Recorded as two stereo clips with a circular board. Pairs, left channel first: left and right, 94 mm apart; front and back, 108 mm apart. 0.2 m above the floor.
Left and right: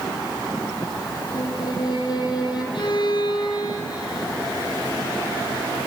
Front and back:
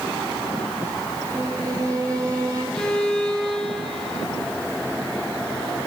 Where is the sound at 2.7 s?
85° left, 2.5 m.